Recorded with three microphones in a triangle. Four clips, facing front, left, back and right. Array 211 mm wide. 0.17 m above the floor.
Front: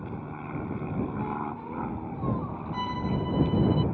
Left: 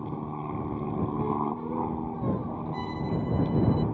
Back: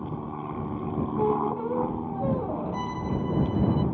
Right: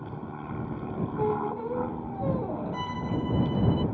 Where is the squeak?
145° right.